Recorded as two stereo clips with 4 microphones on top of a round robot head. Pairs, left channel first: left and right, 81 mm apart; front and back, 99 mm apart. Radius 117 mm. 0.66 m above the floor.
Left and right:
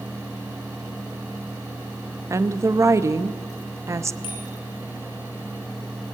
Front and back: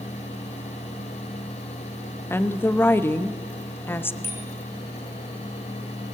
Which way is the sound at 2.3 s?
60° right.